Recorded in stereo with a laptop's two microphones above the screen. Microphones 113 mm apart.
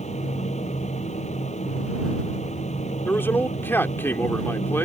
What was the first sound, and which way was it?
A fan, 85° left.